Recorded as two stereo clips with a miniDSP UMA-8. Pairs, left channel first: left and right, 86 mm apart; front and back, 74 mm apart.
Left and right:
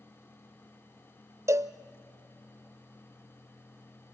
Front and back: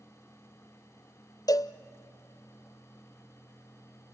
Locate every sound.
1.5 s a cowbell: 35° right, 0.6 m